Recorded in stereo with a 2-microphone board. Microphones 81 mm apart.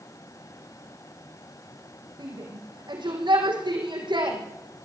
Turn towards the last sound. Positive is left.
turn(degrees=-80)